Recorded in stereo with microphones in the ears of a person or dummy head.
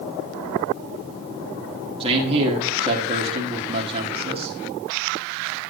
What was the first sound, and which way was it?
A man speaking, 30° right (ahead or behind).